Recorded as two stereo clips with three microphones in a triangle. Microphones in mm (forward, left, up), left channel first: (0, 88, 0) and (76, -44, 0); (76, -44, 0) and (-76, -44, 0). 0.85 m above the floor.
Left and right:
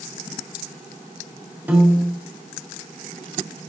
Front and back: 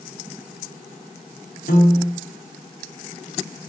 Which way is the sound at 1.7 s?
20° left.